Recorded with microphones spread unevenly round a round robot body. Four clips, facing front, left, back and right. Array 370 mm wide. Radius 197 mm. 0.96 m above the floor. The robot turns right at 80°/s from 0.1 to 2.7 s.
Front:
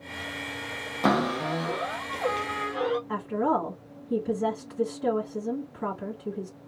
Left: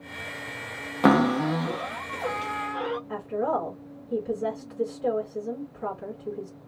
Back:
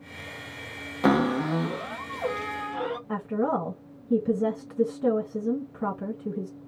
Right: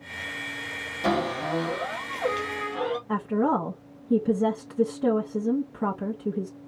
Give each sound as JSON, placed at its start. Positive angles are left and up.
{"t": 1.0, "sound": "a cupboard door", "azimuth_deg": 80, "distance_m": 1.5}
{"t": 3.1, "sound": "a woman speaking", "azimuth_deg": -120, "distance_m": 1.0}